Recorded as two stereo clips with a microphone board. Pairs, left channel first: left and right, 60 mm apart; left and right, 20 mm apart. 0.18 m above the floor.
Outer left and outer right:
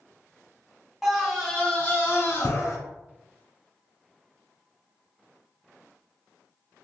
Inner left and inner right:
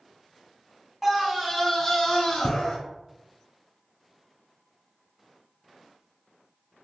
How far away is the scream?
About 1.1 m.